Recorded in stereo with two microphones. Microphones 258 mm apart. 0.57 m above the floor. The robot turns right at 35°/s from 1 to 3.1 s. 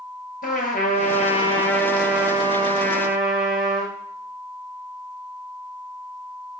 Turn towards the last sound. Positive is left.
turn(degrees=-140)